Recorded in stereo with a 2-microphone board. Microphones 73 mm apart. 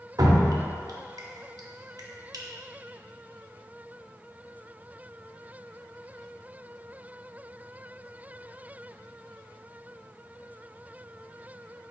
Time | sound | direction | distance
0.2 | dripping | 60° right (ahead or behind) | 0.6 m